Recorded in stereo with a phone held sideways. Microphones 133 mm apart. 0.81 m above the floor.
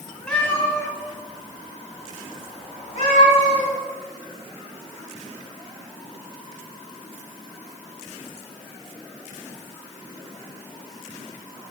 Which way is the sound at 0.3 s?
10° left (ahead or behind).